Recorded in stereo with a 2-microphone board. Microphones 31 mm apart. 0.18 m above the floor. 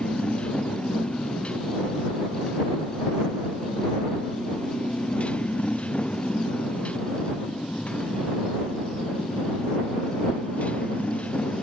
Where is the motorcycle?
40° left (ahead or behind); by 11.6 s 50° left (ahead or behind).